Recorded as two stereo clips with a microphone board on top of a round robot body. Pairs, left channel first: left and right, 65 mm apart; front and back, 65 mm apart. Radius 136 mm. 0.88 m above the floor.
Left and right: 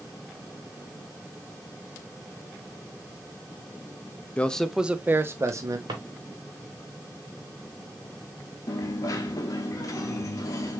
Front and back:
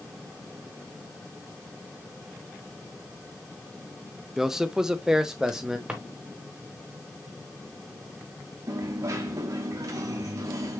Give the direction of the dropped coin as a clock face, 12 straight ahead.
7 o'clock.